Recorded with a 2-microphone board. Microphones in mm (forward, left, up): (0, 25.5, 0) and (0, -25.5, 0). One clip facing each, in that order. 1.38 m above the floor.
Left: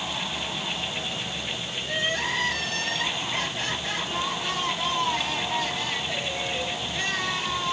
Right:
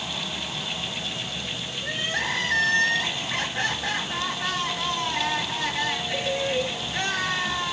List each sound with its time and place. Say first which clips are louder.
1.8 s crying: even; 75° right (ahead or behind), 10 m